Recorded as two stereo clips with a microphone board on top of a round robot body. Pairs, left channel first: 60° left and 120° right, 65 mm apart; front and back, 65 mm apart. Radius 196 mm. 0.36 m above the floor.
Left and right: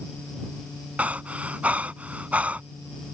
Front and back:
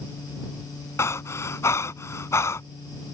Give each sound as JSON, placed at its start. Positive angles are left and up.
{"t": 1.0, "sound": "breathing", "azimuth_deg": -50}